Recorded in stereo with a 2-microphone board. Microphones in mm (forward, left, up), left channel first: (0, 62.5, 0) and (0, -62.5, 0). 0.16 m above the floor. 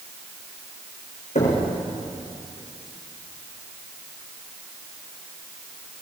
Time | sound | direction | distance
1.4 | knocking | 60° left (ahead or behind) | 7.5 m